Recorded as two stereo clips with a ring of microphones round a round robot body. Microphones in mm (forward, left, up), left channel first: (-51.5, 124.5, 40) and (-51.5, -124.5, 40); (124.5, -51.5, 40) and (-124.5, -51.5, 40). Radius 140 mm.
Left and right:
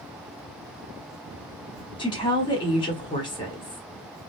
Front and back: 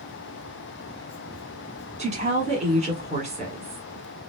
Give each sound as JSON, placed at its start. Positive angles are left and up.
{"t": 2.0, "sound": "a woman speaking", "azimuth_deg": 145, "distance_m": 1.2}